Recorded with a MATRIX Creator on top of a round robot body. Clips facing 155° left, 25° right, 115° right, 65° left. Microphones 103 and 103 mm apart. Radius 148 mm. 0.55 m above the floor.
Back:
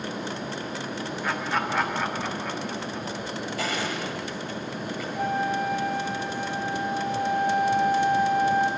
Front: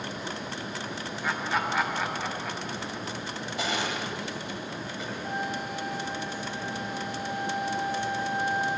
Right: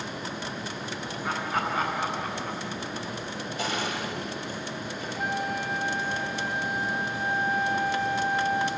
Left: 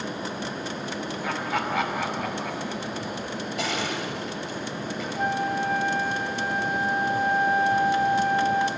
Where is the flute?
120° left, 4.5 m.